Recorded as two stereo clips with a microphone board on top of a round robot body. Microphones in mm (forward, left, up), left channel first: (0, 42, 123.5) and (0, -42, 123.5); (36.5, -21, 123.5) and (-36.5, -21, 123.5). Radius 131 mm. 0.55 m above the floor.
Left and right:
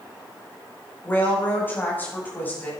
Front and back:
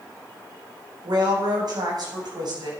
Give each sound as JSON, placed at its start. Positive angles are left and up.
{"t": 1.0, "sound": "a woman speaking", "azimuth_deg": 155, "distance_m": 4.5}